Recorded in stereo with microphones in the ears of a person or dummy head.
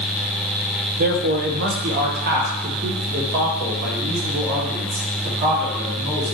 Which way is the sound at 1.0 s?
45° right (ahead or behind).